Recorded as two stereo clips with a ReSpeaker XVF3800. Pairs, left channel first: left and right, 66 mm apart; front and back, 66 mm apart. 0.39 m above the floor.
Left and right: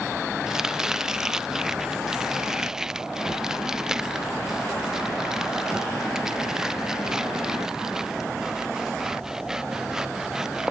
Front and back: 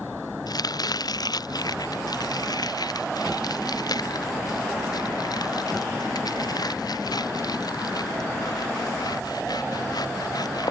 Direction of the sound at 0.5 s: 10° right.